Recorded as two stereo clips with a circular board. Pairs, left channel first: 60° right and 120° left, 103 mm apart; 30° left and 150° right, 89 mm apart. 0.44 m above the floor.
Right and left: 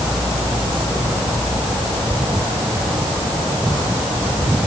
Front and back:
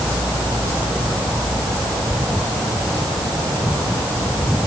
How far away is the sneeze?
I don't hear a sneeze.